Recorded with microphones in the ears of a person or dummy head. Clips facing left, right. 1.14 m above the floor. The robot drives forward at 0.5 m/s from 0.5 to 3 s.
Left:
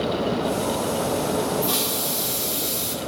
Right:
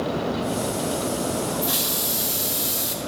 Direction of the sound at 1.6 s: 5° right (ahead or behind).